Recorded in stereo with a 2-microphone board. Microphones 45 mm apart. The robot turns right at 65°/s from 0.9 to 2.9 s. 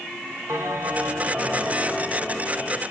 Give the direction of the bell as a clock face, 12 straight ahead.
2 o'clock.